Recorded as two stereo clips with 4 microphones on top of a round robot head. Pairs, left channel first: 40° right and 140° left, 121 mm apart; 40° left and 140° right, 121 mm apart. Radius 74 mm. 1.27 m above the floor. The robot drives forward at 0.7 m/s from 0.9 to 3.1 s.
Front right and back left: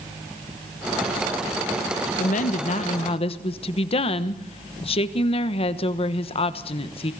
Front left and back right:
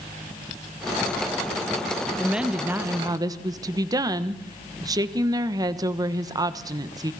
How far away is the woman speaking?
About 1.5 m.